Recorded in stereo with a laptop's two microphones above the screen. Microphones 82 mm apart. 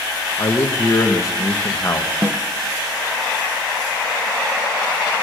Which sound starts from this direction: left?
A man speaking, at 0.4 s.